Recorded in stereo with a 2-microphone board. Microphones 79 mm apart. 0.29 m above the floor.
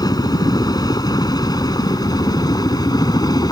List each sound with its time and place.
0.0 s a helicopter: 55° left (ahead or behind)